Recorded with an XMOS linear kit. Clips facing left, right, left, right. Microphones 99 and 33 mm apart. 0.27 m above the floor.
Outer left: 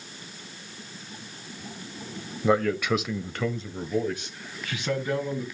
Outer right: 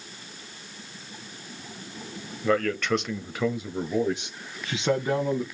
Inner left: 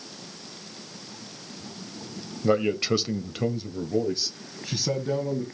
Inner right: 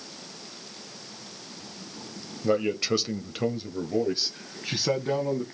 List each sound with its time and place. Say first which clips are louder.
2.4 s a man speaking: outer left 1 dB, inner left 2 dB; 20° left (ahead or behind), 1.0 m; by 5.4 s 30° right (ahead or behind), 1.8 m